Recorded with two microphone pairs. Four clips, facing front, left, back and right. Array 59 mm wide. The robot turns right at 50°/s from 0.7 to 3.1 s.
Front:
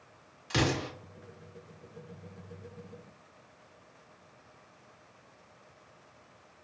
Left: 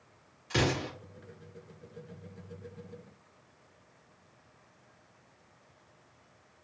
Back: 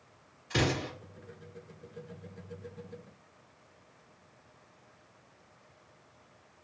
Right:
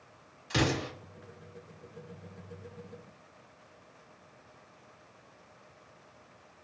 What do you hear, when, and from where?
0.5 s an explosion: straight ahead, 1.6 m; by 0.9 s 10° left, 1.6 m